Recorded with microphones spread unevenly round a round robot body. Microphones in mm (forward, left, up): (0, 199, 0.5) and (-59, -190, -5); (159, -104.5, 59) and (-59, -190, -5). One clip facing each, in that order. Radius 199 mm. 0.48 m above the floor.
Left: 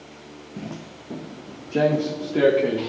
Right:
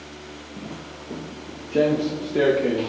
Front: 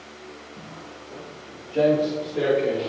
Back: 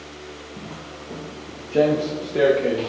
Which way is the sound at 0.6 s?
140° left.